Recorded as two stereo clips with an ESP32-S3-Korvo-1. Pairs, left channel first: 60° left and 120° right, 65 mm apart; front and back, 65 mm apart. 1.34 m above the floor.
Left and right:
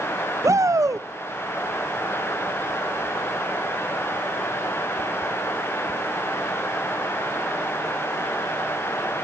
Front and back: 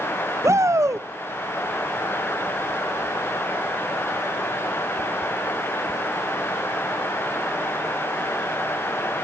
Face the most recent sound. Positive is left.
turn(degrees=-145)